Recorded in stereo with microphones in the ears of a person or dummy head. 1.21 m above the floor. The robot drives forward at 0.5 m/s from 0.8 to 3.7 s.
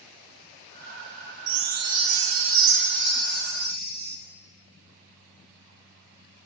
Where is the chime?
75° right (ahead or behind), 1.1 m; by 4.2 s 50° right (ahead or behind), 1.4 m.